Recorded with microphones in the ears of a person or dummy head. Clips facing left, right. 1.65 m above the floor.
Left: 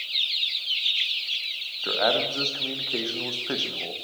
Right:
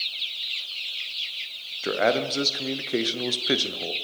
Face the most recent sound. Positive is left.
turn(degrees=-30)  # may be behind; listen again after turning